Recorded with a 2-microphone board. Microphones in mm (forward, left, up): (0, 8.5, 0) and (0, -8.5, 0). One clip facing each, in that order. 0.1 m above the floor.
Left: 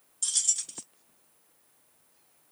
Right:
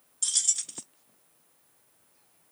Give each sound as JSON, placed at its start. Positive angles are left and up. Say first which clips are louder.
{"t": 0.2, "sound": "keys jangling", "louder": "right 1 dB", "side_deg": -15, "distance_m": 0.8}